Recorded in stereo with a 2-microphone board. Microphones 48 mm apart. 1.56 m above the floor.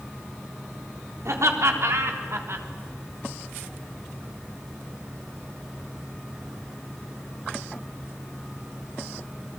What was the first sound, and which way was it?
Laughter, 75° right (ahead or behind).